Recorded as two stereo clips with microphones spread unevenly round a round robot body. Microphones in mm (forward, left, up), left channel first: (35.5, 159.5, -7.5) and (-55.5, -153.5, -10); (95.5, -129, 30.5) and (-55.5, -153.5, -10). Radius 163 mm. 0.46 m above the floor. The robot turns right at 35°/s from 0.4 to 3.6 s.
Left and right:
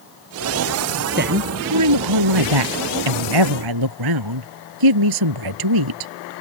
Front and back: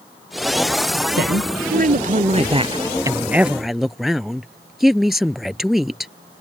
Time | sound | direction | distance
1.2 | a woman speaking | 165° right | ?